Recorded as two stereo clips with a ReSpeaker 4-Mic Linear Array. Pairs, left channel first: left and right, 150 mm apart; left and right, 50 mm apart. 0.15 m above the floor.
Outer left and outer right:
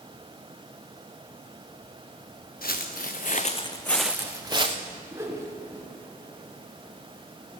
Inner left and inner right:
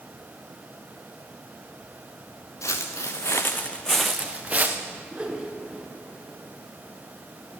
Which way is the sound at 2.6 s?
85° left.